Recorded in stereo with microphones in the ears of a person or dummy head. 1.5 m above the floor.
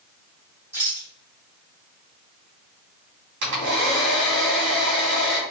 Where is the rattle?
20° right (ahead or behind), 1.3 m.